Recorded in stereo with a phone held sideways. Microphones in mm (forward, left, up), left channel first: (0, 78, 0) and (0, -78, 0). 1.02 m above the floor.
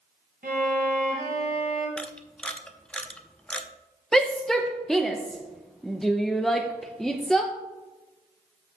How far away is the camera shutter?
About 0.7 m.